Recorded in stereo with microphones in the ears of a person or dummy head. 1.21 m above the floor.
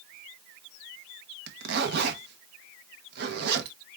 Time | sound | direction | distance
1.5 | a zipper | 60° right (ahead or behind) | 1.0 m